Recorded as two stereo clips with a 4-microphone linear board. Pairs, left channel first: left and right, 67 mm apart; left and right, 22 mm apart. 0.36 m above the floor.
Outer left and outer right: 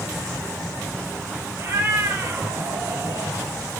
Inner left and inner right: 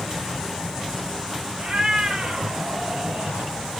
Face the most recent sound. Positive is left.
turn(degrees=-30)  # may be behind; listen again after turning